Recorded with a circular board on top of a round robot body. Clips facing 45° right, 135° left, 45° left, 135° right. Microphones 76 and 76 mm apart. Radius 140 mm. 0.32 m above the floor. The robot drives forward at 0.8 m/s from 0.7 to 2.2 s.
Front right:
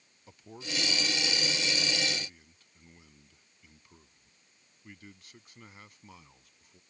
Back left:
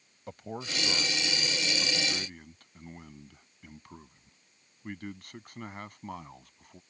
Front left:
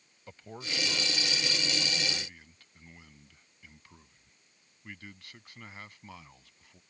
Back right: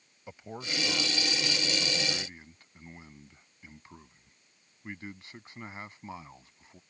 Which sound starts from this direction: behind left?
A man speaking, at 0.3 s.